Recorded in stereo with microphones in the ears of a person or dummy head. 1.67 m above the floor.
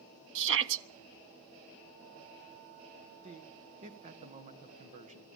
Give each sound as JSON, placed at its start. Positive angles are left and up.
{"t": 0.3, "sound": "a shout", "side_deg": -70, "distance_m": 1.3}
{"t": 3.2, "sound": "a man speaking", "side_deg": -35, "distance_m": 1.7}